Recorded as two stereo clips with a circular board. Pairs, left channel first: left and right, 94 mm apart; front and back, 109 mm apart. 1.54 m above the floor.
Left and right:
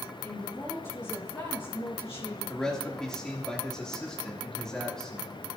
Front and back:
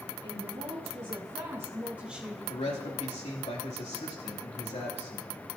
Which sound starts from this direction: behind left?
A woman speaking, at 0.2 s.